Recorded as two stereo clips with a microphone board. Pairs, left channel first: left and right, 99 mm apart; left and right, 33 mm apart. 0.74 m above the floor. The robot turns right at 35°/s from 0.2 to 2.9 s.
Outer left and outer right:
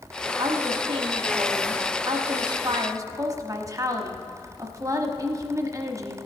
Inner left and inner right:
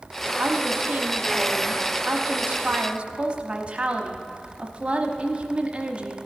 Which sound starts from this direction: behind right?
A woman speaking, at 0.4 s.